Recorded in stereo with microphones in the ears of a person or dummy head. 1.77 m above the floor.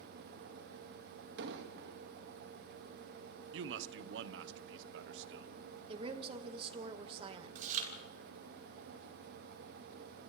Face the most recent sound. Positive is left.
turn(degrees=-50)  # may be behind; listen again after turning